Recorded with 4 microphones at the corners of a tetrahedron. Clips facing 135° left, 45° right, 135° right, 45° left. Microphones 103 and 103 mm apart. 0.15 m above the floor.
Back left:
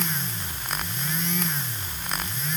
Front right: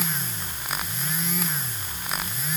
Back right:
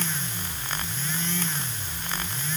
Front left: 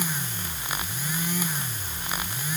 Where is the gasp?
I don't hear a gasp.